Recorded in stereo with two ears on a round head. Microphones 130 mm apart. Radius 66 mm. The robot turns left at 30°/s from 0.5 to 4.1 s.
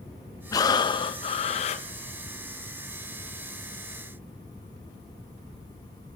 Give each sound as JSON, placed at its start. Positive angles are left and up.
{"t": 0.5, "sound": "breathing", "azimuth_deg": 150, "distance_m": 0.8}